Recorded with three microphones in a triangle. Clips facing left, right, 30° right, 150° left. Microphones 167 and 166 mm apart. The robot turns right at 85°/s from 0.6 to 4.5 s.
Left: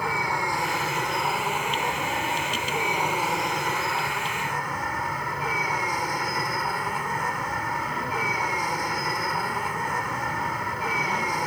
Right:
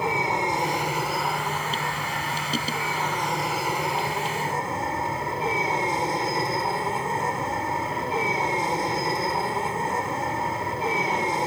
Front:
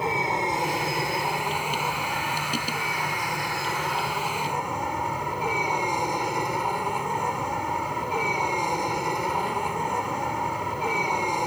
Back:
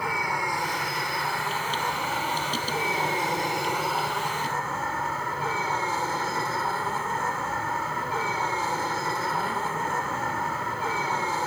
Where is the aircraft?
55° right; by 11.5 s 85° right.